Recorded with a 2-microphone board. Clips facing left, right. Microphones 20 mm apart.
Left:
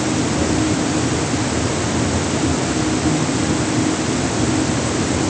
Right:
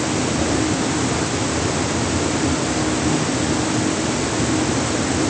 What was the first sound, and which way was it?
Only background noise.